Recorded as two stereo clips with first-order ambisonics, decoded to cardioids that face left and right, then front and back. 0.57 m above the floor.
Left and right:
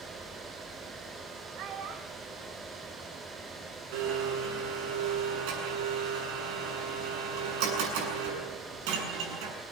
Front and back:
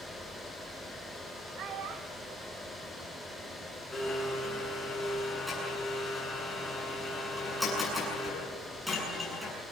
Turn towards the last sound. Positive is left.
turn(degrees=-90)